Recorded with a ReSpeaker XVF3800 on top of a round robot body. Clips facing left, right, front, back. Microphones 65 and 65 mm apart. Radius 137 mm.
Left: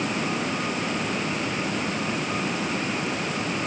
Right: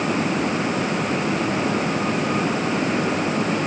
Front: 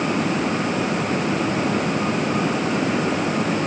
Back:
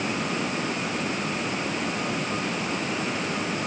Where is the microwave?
No microwave in this recording.